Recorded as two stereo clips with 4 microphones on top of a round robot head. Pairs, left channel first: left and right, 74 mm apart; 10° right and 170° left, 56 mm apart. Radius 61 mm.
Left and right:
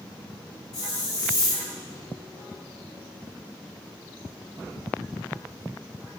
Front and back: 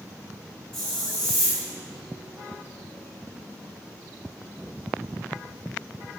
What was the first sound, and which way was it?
A hiss, 75° left.